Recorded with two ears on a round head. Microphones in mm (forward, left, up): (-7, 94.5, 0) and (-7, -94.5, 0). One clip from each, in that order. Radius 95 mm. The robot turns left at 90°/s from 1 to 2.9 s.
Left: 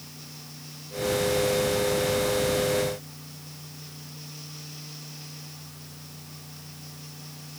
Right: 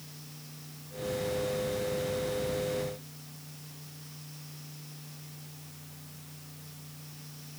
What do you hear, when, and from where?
Only background noise.